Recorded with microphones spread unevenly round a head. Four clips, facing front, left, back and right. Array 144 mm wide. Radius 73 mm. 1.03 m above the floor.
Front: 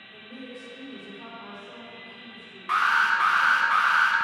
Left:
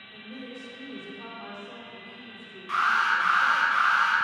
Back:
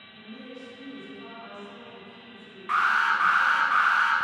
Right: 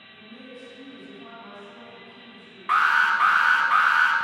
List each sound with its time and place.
0.1 s a woman speaking: 45° left, 2.5 m; by 3.7 s 85° left, 4 m
2.7 s an alarm: 75° right, 1.2 m